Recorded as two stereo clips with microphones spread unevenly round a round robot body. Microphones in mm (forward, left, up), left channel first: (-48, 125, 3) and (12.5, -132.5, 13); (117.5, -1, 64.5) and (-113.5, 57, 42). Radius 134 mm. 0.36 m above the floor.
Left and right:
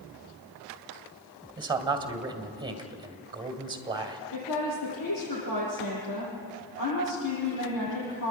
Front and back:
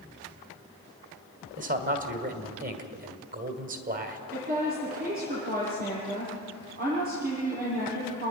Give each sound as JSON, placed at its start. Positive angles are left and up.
{"t": 1.6, "sound": "a man speaking", "azimuth_deg": -150, "distance_m": 2.0}
{"t": 4.3, "sound": "a woman speaking", "azimuth_deg": 115, "distance_m": 8.5}